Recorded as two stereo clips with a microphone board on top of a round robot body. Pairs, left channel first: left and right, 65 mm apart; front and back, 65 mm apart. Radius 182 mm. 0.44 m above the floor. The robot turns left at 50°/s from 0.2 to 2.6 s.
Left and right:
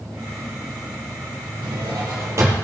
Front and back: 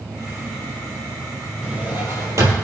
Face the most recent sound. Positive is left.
turn(degrees=-150)